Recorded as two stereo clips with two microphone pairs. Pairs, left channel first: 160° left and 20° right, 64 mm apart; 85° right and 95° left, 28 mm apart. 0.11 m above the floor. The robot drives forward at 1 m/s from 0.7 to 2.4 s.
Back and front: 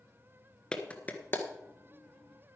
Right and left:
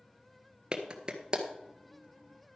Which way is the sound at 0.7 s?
95° left.